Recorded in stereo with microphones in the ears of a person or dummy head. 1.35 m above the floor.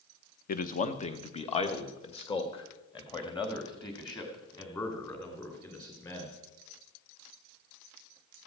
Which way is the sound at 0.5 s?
50° left (ahead or behind).